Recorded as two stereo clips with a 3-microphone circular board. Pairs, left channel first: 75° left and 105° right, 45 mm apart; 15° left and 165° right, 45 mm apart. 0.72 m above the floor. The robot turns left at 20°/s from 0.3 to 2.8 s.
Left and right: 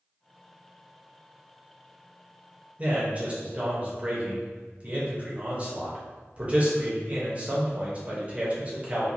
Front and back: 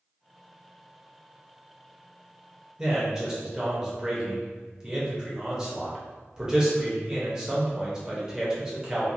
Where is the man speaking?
100° right, 0.9 m.